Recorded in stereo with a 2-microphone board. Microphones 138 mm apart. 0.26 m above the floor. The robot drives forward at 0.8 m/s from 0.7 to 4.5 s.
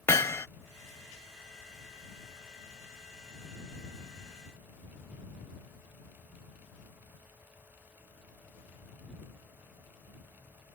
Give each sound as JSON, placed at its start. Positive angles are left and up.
{"t": 0.1, "sound": "hammering", "side_deg": 20}